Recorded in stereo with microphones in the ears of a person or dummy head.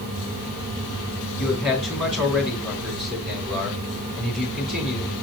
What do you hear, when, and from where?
1.4 s a man speaking: 5° right (ahead or behind), 3.5 m